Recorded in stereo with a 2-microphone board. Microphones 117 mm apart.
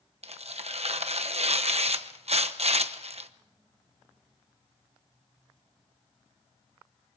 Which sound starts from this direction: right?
Tearing paper, at 0.2 s.